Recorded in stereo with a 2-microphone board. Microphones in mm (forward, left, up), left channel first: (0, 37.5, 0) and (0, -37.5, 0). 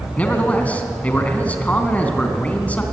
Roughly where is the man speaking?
Centre.